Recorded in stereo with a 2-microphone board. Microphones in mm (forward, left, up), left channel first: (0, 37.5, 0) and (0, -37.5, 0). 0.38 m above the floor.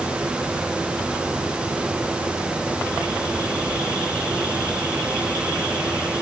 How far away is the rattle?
I don't hear a rattle.